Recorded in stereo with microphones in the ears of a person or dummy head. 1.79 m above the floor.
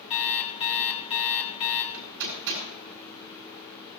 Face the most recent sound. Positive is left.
turn(degrees=-75)  # may be behind; listen again after turning